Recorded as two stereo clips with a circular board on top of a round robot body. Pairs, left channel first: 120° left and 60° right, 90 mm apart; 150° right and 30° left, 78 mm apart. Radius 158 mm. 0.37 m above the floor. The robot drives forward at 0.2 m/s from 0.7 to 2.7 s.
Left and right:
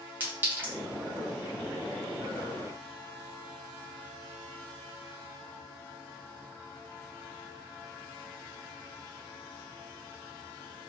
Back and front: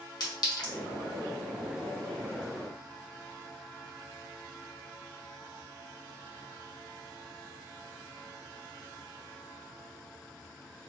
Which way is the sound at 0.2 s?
125° right.